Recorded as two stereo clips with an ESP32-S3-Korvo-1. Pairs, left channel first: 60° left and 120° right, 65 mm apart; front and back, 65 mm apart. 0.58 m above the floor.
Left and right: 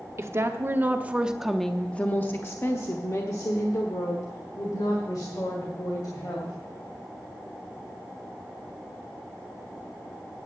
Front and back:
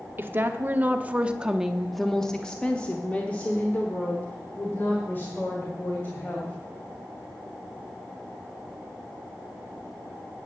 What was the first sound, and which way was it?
A woman speaking, 140° right.